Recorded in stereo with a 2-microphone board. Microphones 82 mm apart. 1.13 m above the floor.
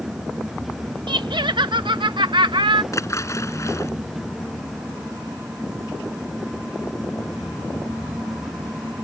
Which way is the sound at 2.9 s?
40° left (ahead or behind).